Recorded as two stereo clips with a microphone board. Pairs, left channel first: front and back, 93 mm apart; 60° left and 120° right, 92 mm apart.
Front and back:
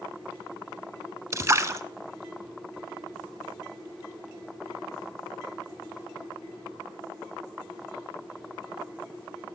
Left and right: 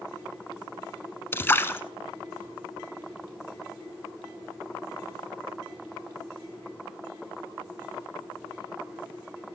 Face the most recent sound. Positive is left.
turn(degrees=125)